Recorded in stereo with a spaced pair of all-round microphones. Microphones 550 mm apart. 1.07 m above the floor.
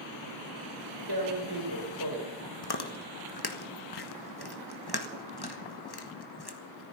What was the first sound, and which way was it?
Tearing paper, 45° right (ahead or behind).